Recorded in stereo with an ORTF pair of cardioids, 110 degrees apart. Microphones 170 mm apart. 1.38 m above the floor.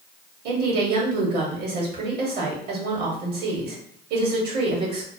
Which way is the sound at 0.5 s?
65° right.